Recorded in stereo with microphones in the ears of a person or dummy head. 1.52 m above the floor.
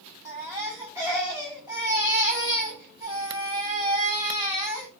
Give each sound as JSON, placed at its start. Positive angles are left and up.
{"t": 0.2, "sound": "a baby crying", "side_deg": -20, "distance_m": 6.5}